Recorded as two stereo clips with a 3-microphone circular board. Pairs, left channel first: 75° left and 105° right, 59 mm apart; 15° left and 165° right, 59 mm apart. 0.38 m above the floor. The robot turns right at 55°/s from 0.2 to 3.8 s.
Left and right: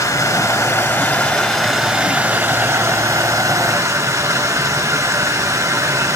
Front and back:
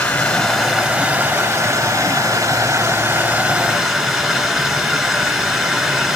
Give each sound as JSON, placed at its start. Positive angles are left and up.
{"t": 0.0, "sound": "running water", "azimuth_deg": 80, "distance_m": 1.2}